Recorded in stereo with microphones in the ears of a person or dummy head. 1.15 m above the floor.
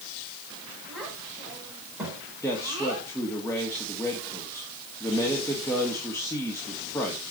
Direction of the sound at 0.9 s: Centre (ahead or behind).